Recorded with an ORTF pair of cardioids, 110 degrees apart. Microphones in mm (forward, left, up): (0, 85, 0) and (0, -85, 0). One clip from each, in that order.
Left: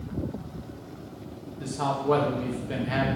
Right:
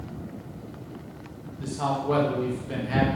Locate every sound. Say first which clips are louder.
1.6 s a man speaking: even; 10° left, 2 m